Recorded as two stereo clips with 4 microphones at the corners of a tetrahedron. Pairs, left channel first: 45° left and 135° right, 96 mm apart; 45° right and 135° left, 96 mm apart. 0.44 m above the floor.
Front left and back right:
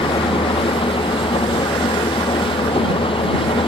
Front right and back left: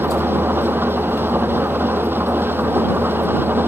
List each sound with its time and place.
0.0 s an engine running: 65° left